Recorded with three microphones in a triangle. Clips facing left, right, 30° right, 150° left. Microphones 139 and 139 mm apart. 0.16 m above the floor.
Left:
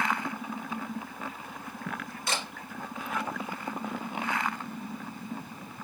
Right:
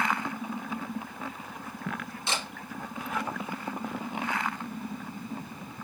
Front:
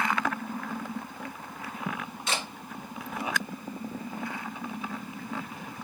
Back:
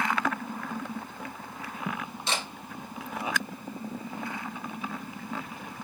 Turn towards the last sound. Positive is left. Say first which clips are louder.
# even, even
turn(degrees=-155)